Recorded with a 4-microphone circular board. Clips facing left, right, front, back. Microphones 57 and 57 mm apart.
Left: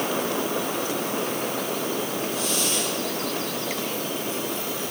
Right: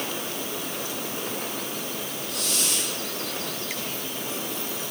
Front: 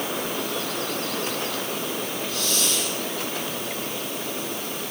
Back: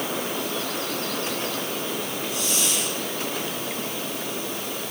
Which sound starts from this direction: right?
A hiss, at 2.3 s.